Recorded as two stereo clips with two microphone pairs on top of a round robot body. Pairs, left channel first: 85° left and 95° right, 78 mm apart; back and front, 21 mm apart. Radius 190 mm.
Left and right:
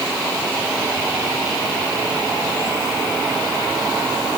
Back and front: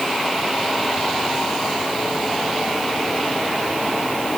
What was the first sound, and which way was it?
Only background noise.